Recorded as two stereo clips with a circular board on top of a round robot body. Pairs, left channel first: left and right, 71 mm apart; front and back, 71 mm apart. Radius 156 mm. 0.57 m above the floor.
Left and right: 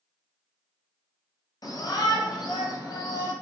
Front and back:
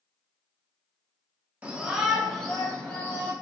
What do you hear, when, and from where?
1.6 s a shout: 110° left, 1.3 m; by 3.3 s 65° left, 1.8 m